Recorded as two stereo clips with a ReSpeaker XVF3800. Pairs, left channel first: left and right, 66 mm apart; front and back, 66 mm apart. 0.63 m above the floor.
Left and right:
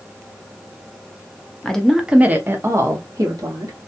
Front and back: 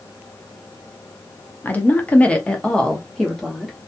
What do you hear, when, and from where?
1.6 s a woman speaking: 20° left, 0.6 m; by 3.8 s 85° right, 1.1 m